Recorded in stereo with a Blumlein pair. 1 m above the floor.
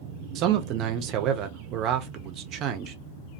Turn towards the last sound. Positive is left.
turn(degrees=-35)